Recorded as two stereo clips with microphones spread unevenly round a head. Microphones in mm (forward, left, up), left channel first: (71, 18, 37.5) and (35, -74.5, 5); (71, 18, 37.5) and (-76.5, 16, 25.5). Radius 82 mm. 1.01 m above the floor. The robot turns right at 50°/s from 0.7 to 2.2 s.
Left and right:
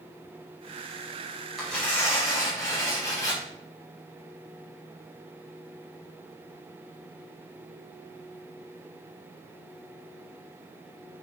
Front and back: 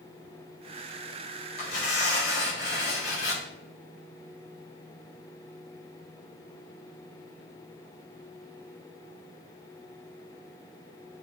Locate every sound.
1.6 s tearing paper: 25° right, 4.5 m; by 3.4 s 5° left, 4.5 m